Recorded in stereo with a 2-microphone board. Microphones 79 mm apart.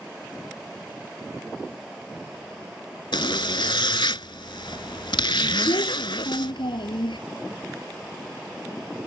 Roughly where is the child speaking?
Left.